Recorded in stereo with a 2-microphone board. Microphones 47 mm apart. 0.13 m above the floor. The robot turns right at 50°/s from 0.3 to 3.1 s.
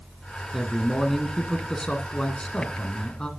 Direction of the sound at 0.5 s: 5° right (ahead or behind).